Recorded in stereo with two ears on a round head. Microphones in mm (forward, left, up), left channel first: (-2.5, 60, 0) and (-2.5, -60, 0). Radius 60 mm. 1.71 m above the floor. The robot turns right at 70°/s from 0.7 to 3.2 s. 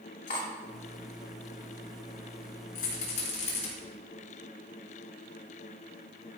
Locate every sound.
0.3 s cutlery clinking: 70° left (ahead or behind), 3 m
2.8 s a rattle: 70° left (ahead or behind), 4 m; by 3.7 s 55° left (ahead or behind), 4 m